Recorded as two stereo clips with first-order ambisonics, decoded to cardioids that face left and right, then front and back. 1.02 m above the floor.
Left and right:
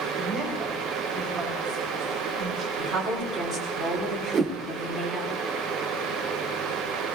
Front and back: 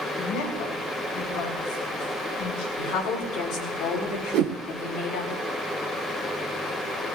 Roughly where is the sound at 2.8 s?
Ahead.